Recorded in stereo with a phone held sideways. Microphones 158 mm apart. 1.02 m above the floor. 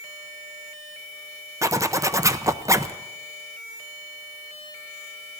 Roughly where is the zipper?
Centre.